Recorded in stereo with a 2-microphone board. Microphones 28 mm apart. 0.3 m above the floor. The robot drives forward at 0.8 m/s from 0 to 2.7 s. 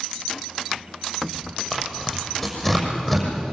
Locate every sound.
1.7 s tearing paper: 15° left (ahead or behind), 6 m; by 3.5 s 10° left (ahead or behind), 6.5 m